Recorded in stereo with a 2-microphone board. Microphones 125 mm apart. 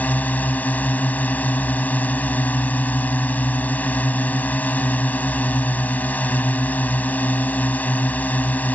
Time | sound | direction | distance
0.0 | a drone | 15° left (ahead or behind) | ?